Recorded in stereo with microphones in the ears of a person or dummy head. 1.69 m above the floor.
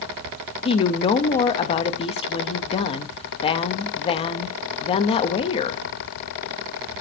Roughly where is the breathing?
No breathing in this recording.